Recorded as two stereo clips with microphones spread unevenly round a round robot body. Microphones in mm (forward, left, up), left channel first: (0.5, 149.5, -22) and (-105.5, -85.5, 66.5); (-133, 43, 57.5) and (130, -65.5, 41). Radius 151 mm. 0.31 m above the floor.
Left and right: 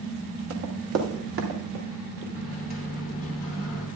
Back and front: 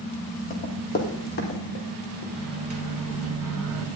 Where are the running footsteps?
140° right, 2 m; by 2.2 s 150° right, 3.5 m.